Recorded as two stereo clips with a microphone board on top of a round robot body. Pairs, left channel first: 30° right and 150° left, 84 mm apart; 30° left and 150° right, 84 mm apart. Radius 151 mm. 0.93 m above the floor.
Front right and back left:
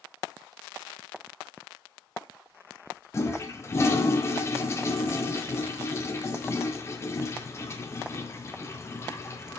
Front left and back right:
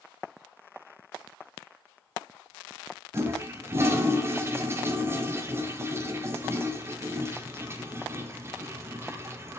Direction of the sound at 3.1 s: 90° right.